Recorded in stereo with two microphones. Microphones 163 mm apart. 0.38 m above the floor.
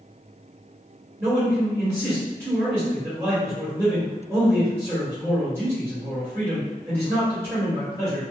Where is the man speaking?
20° right (ahead or behind), 1.8 m.